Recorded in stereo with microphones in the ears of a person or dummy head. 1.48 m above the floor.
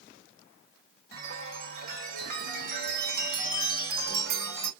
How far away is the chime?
About 2 m.